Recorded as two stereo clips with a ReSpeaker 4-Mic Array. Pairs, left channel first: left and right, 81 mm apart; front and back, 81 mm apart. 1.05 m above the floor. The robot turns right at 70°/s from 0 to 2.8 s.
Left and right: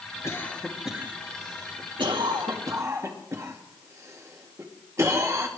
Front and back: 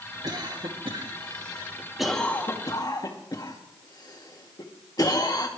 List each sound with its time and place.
0.2 s a cough: 145° left, 2 m; by 5.5 s 35° right, 2 m